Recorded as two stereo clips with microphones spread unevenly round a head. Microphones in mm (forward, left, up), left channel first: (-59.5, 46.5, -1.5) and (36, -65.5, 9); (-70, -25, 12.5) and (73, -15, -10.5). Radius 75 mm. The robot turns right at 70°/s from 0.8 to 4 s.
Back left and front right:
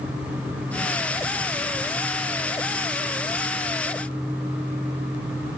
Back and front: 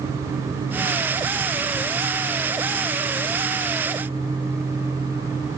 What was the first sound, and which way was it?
Only background noise.